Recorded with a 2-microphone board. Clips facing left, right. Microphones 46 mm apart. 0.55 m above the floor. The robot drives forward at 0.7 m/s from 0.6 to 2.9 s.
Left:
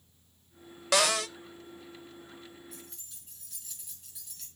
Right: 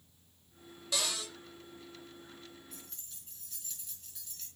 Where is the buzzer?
No buzzer in this recording.